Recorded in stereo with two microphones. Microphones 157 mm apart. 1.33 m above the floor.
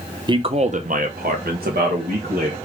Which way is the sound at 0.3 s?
30° right (ahead or behind).